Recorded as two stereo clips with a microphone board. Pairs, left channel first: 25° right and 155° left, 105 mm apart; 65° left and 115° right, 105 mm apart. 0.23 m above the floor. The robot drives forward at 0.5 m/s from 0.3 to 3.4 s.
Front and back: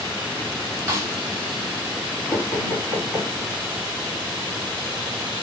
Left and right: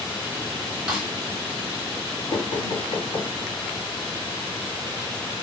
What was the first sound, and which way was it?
A snare drum, 175° left.